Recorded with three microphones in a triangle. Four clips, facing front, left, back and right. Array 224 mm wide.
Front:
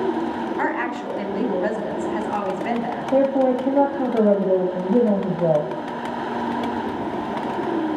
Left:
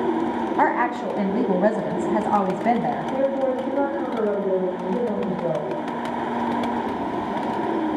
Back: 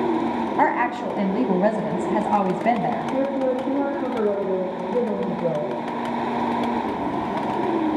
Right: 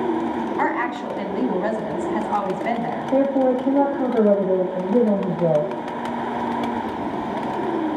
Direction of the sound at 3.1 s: 30° right.